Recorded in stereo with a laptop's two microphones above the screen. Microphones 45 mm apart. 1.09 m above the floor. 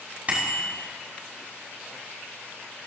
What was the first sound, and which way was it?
A bicycle bell, 30° right (ahead or behind).